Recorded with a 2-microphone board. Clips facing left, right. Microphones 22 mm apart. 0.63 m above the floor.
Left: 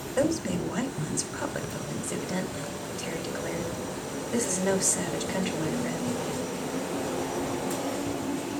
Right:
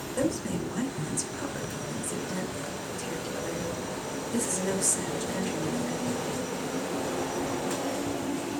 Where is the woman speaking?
25° left (ahead or behind), 2.5 m.